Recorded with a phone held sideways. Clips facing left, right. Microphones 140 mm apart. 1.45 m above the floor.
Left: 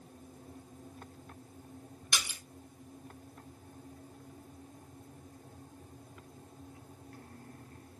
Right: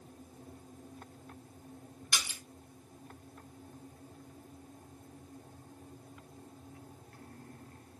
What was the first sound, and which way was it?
A splash, 15° left (ahead or behind).